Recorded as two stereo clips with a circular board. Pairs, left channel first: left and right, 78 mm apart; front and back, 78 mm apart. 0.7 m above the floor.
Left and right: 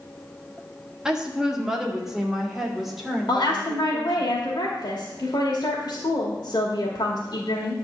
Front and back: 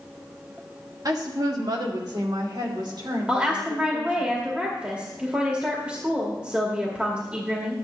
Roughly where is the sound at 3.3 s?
Left.